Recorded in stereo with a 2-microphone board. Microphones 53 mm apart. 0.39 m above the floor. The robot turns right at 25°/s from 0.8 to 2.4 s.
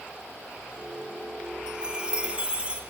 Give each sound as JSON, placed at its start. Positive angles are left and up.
{"t": 1.7, "sound": "a chime", "side_deg": -20, "distance_m": 1.2}